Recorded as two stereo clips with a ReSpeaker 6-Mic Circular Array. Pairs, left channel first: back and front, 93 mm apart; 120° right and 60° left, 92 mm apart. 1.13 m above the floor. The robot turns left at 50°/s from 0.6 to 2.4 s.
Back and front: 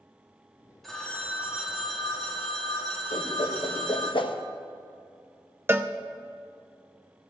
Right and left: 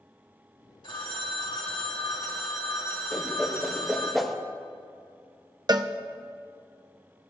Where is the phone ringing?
90° right, 2 m; by 4.1 s 170° right, 2 m.